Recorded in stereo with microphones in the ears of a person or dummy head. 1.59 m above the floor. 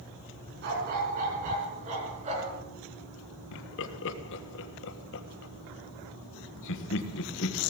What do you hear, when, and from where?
0.6 s a dog barking: 50° right (ahead or behind), 4.5 m; by 2.6 s 35° right (ahead or behind), 5 m
3.5 s laughter: 70° left (ahead or behind), 1.4 m